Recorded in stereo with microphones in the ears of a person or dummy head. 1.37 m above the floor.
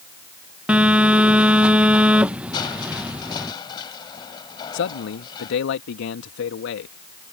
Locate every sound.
0.7 s a phone buzzing: 5° right (ahead or behind)
2.5 s crushing: 30° left (ahead or behind)
4.7 s a man speaking: 70° left (ahead or behind)